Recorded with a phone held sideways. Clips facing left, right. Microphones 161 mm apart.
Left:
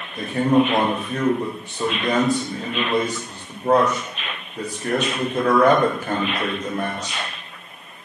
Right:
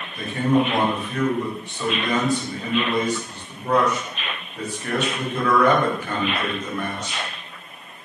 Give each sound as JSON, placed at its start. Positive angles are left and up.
{"t": 0.2, "sound": "a man speaking", "side_deg": 35, "distance_m": 0.9}